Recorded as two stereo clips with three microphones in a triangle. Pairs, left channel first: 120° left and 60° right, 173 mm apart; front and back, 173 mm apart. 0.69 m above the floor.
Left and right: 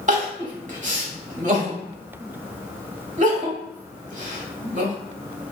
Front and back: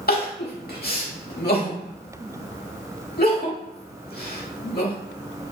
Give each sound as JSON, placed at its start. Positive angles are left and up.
{"t": 0.1, "sound": "crying", "azimuth_deg": -20, "distance_m": 0.8}